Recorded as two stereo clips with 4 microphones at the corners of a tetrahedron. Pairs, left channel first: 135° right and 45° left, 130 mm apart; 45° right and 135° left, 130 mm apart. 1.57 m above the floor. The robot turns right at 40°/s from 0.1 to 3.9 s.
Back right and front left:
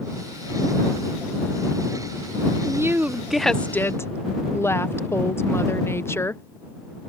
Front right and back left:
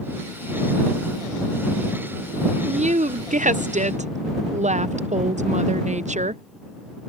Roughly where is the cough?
No cough in this recording.